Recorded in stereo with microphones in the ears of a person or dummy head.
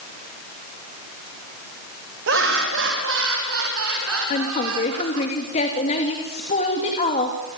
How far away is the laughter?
About 2.5 m.